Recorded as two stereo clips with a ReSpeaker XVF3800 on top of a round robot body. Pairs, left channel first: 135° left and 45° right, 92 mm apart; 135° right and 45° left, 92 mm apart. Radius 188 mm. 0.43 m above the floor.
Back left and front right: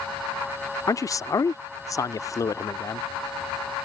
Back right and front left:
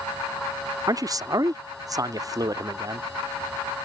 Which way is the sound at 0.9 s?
85° left.